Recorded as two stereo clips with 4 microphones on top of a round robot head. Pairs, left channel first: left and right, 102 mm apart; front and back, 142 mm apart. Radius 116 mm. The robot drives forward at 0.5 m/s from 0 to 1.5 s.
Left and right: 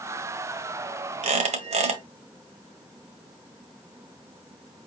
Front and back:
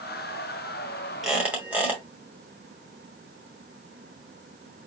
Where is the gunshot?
No gunshot in this recording.